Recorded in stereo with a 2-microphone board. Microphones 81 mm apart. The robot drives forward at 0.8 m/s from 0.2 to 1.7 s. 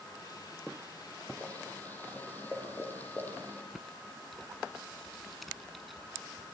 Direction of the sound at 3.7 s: Centre (ahead or behind).